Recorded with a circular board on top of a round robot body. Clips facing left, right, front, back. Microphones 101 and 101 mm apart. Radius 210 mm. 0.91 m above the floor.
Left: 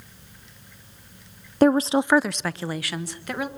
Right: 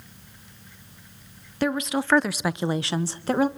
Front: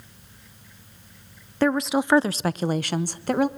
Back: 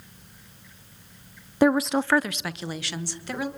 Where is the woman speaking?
110° left, 0.9 m; by 3.5 s 35° right, 1.8 m.